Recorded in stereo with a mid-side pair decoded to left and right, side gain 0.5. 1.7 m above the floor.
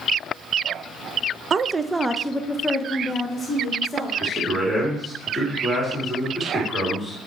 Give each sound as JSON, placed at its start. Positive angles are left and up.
{"t": 1.5, "sound": "a woman speaking", "azimuth_deg": -40, "distance_m": 0.6}
{"t": 4.2, "sound": "a man speaking", "azimuth_deg": -5, "distance_m": 3.5}